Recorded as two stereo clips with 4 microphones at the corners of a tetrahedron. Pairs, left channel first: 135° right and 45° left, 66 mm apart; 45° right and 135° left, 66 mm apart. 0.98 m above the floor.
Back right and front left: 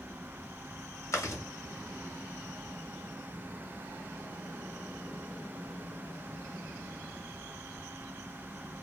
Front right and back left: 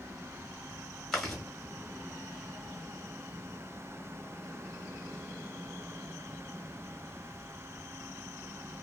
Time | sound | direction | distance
1.1 | chewing | 125° right | 1.0 m